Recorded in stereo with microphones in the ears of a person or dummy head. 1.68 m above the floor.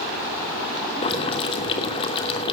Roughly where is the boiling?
Left.